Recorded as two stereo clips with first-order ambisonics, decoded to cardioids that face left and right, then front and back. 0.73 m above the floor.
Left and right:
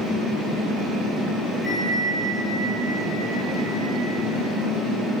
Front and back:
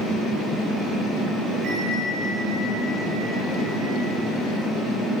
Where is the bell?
170° right, 8.5 m.